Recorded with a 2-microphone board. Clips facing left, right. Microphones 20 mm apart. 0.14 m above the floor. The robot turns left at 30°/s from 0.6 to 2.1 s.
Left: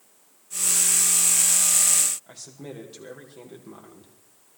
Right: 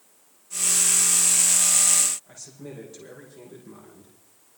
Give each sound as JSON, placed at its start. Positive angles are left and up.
{"t": 2.3, "sound": "a man speaking", "side_deg": 65, "distance_m": 6.0}